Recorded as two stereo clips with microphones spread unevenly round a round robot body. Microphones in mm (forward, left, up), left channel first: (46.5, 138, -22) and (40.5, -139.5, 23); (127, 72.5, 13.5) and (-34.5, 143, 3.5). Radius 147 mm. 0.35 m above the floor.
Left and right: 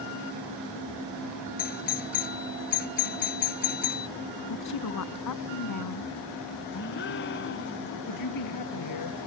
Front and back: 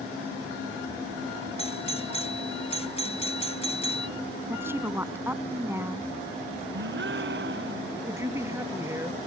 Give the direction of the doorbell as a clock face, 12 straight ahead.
11 o'clock.